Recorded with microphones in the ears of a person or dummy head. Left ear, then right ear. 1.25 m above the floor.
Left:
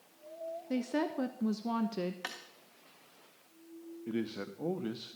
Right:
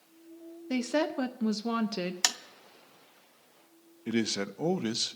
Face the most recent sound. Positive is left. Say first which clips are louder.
# right 7 dB
turn(degrees=-75)  # may be behind; listen again after turning